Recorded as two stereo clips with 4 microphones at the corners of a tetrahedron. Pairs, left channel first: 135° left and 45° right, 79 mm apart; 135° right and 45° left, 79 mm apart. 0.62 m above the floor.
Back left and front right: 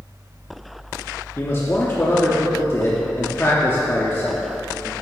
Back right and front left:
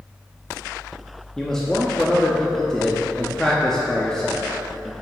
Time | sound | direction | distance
1.4 | a man speaking | 150° left | 0.7 m